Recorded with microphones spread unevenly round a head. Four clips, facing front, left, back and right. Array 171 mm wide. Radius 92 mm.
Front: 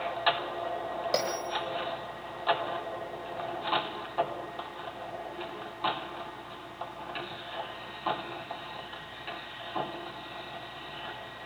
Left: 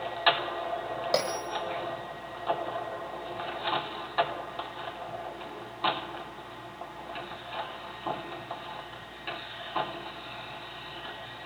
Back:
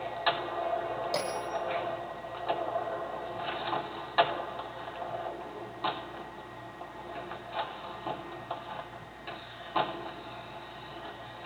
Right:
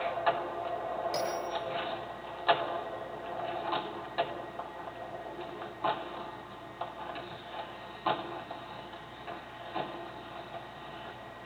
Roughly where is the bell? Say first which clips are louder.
Left 4 dB, front 2 dB; ahead left.